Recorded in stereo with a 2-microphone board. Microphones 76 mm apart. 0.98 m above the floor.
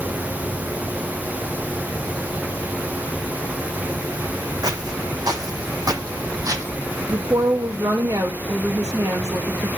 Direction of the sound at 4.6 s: 60° right (ahead or behind).